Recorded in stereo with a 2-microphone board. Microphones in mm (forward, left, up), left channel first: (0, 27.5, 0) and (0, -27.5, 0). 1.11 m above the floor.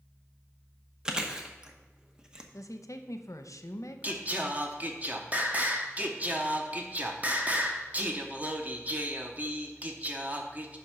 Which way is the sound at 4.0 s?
30° right (ahead or behind).